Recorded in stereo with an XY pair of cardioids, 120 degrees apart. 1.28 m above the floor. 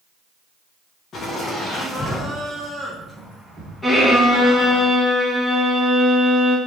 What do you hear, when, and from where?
1.1 s laughter: 45° left, 0.9 m; by 4.8 s 45° right, 1.8 m
3.8 s a violin: 5° left, 1.6 m